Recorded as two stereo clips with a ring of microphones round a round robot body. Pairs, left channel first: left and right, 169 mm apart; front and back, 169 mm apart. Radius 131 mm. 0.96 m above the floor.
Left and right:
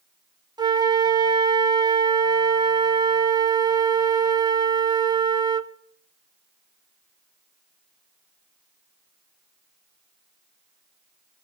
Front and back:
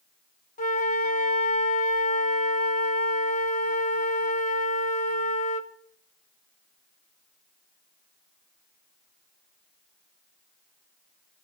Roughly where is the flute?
Ahead right.